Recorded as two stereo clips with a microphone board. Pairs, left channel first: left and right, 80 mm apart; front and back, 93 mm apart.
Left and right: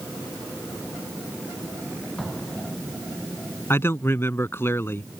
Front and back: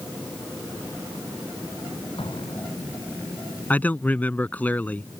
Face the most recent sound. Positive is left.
turn(degrees=60)